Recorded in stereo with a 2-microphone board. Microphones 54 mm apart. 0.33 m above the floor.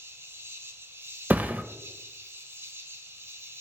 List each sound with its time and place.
0.0 s an insect: 45° right (ahead or behind), 0.8 m
1.3 s a thud: 30° right (ahead or behind), 0.5 m